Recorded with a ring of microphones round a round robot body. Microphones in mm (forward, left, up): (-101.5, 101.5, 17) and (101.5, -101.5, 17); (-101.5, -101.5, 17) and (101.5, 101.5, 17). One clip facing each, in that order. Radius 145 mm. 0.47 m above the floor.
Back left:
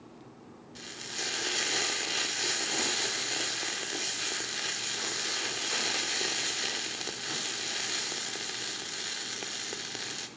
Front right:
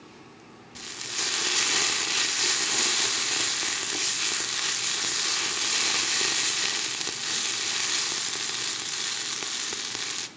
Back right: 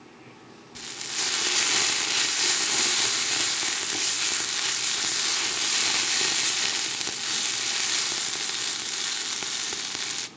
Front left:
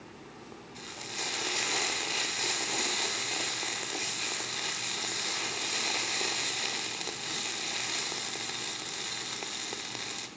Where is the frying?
105° right, 0.8 m.